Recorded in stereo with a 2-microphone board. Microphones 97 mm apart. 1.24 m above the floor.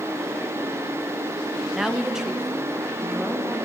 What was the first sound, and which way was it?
A woman speaking, 5° right (ahead or behind).